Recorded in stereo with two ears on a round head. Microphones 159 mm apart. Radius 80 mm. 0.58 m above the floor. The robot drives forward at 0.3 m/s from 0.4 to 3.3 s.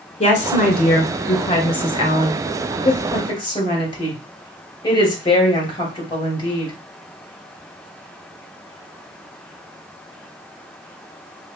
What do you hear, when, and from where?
0.2 s a woman speaking: 35° left (ahead or behind), 1.9 m; by 6.7 s 25° left (ahead or behind), 2.5 m